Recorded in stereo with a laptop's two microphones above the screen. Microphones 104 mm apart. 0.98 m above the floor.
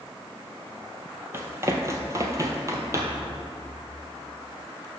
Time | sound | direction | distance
1.3 | running footsteps | 25° right (ahead or behind) | 1.1 m